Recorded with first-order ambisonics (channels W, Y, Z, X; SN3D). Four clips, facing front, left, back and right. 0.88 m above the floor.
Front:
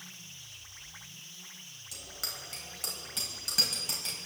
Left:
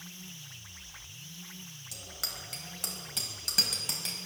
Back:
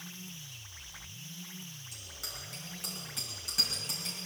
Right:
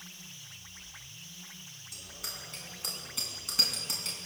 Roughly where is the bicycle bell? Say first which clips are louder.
Left 3 dB, front 5 dB; ahead left.